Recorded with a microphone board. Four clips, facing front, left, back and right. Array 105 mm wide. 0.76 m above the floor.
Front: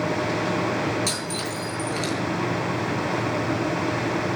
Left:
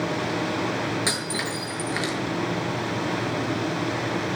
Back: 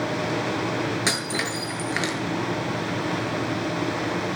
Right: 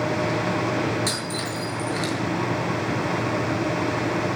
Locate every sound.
1.1 s breaking glass: 155° left, 7.5 m